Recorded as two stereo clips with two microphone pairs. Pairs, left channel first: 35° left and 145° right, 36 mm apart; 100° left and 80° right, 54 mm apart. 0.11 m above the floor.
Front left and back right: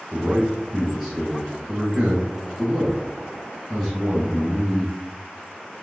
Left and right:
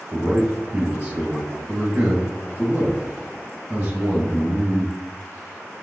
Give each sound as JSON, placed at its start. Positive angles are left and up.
{"t": 0.1, "sound": "a man speaking", "azimuth_deg": -90, "distance_m": 1.3}